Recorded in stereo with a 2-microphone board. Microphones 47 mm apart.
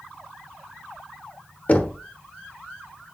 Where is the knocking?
30° left (ahead or behind), 1.0 m.